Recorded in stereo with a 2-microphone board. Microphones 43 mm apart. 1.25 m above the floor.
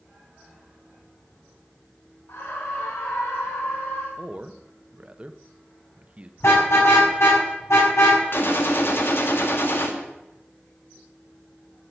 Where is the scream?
80° left, 3 m; by 4.1 s 85° left, 3 m.